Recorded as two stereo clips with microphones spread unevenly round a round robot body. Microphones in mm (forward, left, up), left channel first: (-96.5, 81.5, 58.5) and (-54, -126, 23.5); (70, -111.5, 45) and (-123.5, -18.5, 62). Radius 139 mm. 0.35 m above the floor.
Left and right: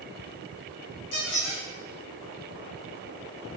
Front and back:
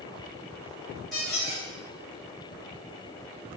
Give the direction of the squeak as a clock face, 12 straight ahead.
10 o'clock.